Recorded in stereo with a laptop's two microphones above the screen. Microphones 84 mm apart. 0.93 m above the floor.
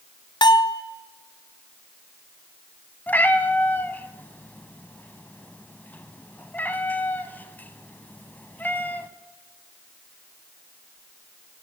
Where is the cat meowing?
20° left (ahead or behind), 0.8 m.